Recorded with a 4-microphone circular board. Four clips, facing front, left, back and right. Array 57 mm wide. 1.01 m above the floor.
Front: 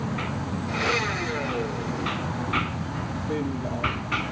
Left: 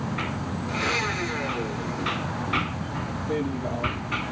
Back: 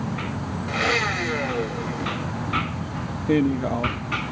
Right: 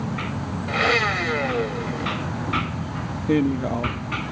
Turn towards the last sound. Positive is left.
turn(degrees=-140)